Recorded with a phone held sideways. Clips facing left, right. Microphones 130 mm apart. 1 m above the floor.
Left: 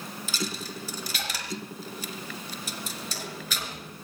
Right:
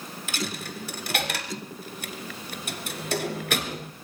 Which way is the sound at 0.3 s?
65° right (ahead or behind).